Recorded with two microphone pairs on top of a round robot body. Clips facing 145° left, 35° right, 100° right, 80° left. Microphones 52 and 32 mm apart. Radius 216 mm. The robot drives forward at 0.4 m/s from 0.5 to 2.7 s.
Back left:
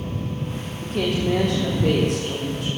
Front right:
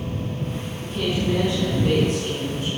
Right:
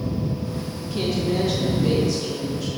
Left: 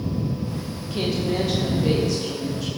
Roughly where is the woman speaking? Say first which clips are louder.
Back left 2 dB, right 1 dB; behind left.